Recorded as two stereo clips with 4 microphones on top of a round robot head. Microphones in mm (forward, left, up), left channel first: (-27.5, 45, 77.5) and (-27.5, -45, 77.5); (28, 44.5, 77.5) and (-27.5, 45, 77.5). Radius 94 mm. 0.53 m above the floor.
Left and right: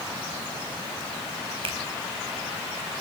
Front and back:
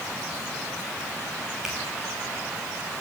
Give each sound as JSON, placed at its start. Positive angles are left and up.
{"t": 1.6, "sound": "a finger snap", "azimuth_deg": -100, "distance_m": 4.0}